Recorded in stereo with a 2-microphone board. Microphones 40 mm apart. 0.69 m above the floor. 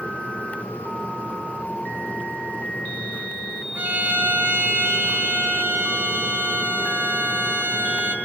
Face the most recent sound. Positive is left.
turn(degrees=-50)  # may be behind; listen again after turning